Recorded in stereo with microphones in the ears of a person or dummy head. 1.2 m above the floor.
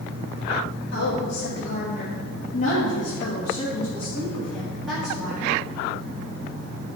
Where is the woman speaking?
80° left, 2.0 m; by 5.5 s centre (ahead or behind), 2.5 m.